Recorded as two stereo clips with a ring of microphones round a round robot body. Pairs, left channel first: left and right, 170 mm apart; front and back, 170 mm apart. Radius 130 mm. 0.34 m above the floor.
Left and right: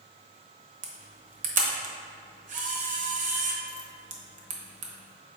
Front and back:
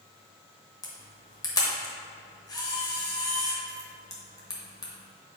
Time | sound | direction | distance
0.8 | a camera shutter | 65° right | 1.0 m